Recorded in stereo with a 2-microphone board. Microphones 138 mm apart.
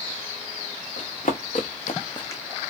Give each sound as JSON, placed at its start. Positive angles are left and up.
{"t": 1.0, "sound": "running footsteps", "side_deg": 80, "distance_m": 1.4}